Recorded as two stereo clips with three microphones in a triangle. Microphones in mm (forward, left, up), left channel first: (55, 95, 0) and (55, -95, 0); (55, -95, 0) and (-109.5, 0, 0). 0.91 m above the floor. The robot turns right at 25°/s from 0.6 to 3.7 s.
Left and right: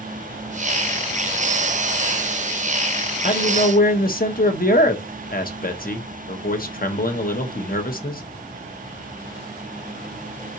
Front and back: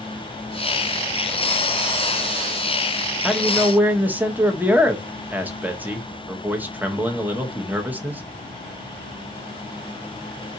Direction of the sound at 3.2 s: 60° left.